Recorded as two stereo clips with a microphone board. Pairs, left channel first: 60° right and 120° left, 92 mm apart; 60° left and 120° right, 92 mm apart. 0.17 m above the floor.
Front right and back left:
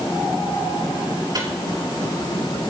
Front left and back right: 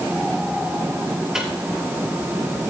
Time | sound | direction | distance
1.3 | a microwave | 155° left | 3.5 m